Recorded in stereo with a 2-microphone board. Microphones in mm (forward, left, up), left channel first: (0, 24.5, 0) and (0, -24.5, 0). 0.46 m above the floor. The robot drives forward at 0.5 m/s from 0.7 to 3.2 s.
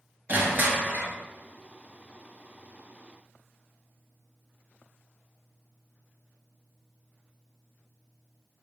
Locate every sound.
0.3 s crushing: 40° right (ahead or behind), 1.0 m; by 1.1 s 35° right (ahead or behind), 1.2 m